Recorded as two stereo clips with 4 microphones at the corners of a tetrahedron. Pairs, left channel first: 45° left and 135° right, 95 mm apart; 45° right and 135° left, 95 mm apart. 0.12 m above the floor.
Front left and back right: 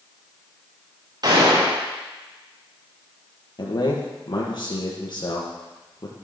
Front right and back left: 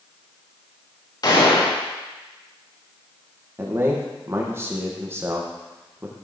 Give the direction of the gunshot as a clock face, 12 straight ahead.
3 o'clock.